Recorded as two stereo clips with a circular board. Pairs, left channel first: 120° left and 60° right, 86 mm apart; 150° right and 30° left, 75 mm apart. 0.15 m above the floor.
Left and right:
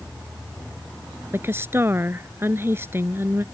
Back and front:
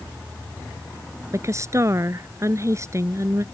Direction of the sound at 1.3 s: 5° right.